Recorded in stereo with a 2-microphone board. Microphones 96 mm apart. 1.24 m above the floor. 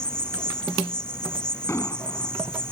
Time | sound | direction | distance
0.0 | an insect | 10° left (ahead or behind) | ?
1.7 | an explosion | 30° left (ahead or behind) | ?